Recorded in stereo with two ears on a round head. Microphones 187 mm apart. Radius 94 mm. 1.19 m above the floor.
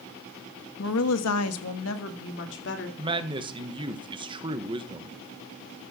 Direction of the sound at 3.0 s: 25° right (ahead or behind).